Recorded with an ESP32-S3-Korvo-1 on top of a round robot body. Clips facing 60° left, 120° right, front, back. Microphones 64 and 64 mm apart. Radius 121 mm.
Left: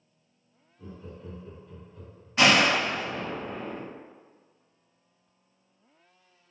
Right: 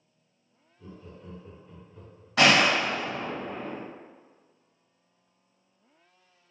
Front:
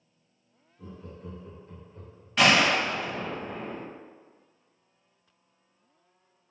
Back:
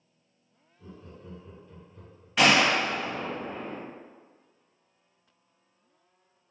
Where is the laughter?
15° right, 1.1 m; by 2.3 s 65° right, 1.4 m.